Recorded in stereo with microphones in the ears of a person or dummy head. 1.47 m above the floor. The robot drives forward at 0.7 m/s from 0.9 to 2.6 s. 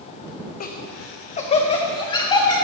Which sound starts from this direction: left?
Laughter, at 0.6 s.